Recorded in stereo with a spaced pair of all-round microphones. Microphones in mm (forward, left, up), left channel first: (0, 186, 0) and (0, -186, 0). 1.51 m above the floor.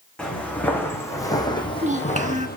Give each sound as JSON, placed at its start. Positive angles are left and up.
{"t": 0.2, "sound": "footsteps", "side_deg": 5, "distance_m": 4.5}
{"t": 1.6, "sound": "a child speaking", "side_deg": -20, "distance_m": 1.3}